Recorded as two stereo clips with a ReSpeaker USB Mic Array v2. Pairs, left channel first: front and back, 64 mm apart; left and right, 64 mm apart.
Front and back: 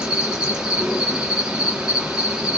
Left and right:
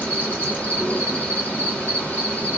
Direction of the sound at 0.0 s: 115° left.